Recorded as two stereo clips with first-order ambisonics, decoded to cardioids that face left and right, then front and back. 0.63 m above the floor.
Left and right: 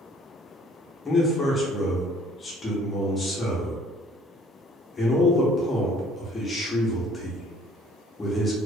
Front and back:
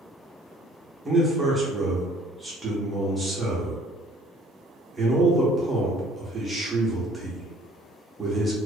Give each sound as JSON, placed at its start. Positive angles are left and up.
{"t": 1.1, "sound": "a man speaking", "azimuth_deg": 130, "distance_m": 0.5}